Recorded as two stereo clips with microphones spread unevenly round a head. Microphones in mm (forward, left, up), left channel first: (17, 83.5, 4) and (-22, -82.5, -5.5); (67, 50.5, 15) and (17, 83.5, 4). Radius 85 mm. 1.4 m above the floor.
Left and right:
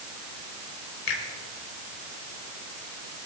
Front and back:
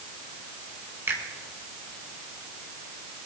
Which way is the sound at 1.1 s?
100° left.